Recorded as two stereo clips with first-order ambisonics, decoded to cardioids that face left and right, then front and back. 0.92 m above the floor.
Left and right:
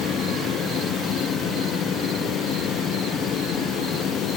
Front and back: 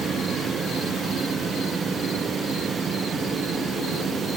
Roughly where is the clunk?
No clunk in this recording.